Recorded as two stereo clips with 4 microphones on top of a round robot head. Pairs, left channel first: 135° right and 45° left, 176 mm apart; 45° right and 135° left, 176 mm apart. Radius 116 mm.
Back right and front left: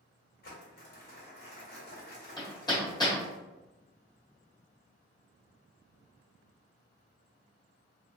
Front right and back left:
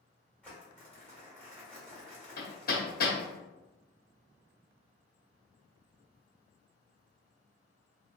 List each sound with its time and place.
0.4 s crumpling: 125° right, 1.7 m
2.4 s hammering: 70° right, 1.5 m